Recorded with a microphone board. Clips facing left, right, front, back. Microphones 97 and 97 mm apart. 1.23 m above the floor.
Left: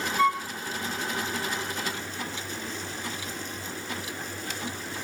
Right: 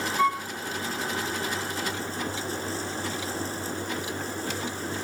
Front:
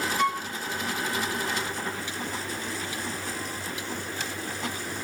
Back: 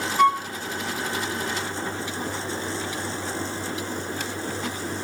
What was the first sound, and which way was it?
A flute, 175° right.